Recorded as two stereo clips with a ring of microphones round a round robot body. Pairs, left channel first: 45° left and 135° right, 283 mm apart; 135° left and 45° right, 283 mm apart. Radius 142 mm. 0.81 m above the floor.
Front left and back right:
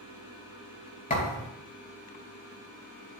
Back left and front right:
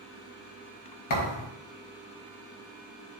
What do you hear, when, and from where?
1.1 s a thud: 110° left, 4 m